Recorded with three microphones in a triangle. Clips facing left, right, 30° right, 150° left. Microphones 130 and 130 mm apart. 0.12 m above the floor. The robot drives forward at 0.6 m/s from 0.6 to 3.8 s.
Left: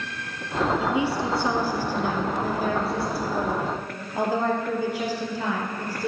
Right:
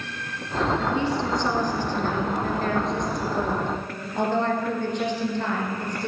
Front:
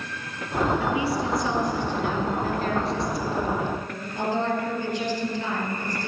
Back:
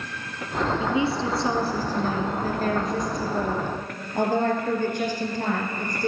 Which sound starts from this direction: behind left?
A woman speaking, at 0.8 s.